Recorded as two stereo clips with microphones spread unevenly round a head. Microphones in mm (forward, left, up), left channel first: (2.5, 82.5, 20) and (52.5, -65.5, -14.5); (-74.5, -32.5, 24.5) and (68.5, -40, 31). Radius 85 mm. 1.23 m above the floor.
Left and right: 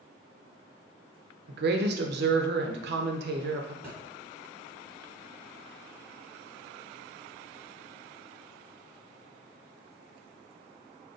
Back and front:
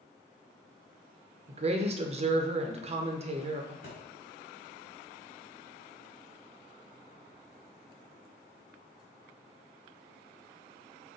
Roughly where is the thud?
Behind.